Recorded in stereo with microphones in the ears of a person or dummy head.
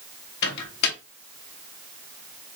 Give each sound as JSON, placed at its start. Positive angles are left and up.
{"t": 0.4, "sound": "a microwave", "side_deg": 60, "distance_m": 1.1}